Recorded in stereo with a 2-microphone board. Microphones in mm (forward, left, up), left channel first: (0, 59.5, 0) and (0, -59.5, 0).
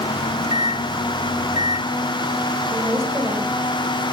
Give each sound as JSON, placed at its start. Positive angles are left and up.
{"t": 0.2, "sound": "a microwave", "side_deg": 70, "distance_m": 1.1}
{"t": 2.7, "sound": "a woman speaking", "side_deg": -25, "distance_m": 5.5}